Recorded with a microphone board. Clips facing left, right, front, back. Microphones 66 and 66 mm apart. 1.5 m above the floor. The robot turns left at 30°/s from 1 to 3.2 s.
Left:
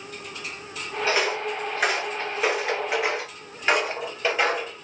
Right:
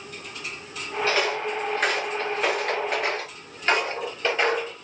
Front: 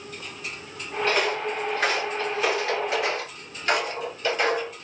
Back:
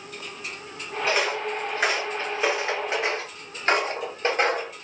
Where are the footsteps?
120° left, 1.5 m; by 4.7 s 165° left, 2.5 m.